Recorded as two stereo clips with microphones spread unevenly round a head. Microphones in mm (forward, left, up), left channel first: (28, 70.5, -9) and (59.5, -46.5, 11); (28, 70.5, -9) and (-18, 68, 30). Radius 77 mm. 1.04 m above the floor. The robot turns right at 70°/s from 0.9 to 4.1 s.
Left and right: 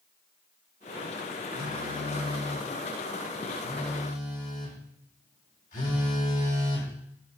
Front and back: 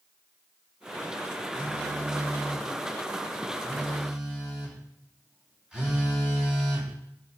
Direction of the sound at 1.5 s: 80° right.